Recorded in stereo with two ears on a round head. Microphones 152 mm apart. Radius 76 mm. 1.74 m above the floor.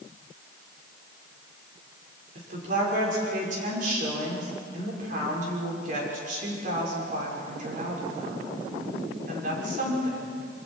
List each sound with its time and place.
2.4 s a woman speaking: 50° right (ahead or behind), 5.5 m